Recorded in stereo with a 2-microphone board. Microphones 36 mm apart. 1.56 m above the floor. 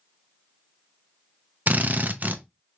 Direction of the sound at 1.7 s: 55° right (ahead or behind).